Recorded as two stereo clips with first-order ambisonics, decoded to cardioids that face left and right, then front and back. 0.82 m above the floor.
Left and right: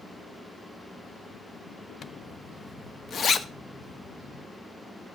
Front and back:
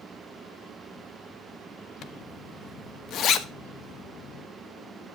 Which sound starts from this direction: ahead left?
A zipper, at 2.0 s.